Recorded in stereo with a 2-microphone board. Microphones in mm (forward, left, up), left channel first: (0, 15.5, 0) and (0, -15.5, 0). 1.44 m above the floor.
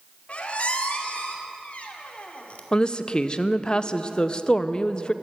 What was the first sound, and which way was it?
A squeak, 50° left (ahead or behind).